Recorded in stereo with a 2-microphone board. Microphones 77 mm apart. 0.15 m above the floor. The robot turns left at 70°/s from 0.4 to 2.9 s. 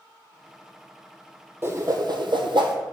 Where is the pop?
I don't hear a pop.